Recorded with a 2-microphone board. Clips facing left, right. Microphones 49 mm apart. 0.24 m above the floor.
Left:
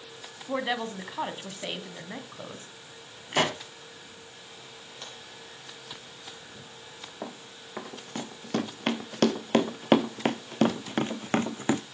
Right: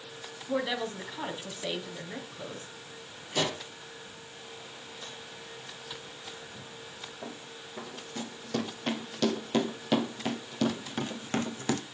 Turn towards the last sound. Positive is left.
turn(degrees=15)  # may be behind; listen again after turning